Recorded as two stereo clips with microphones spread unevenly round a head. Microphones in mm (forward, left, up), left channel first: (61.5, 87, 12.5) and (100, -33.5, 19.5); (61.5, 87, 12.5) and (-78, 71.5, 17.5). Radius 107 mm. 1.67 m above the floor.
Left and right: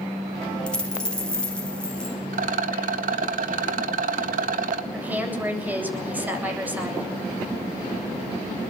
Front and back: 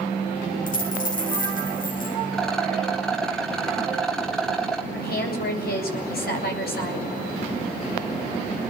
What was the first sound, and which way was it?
A dropped coin, 25° left.